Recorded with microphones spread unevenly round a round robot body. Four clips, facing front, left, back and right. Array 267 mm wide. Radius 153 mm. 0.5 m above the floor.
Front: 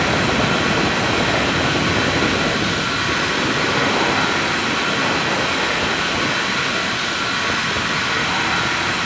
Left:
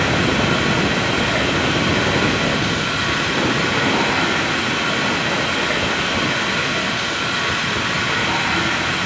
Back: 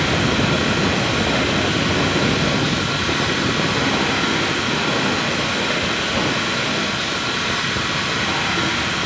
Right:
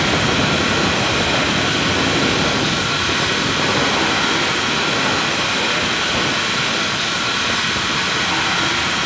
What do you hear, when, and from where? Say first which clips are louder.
0.0 s running water: even, front 1 dB; 135° left, 1.5 m